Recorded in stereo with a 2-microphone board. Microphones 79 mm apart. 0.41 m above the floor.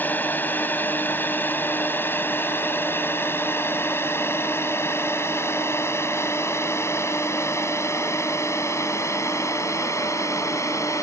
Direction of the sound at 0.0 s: 25° left (ahead or behind).